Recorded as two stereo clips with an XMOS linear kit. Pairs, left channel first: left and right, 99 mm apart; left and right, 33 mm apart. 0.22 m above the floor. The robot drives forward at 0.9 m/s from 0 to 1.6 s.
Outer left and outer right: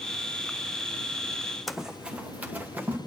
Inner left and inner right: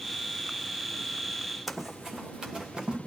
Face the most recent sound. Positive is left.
turn(degrees=-20)  # may be behind; listen again after turning